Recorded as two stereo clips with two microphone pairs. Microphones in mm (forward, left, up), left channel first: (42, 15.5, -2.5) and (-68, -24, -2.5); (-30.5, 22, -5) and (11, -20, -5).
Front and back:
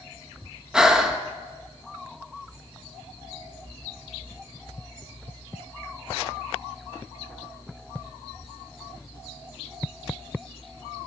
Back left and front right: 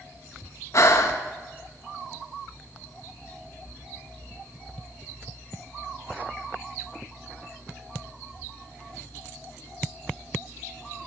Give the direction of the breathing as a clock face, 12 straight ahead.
8 o'clock.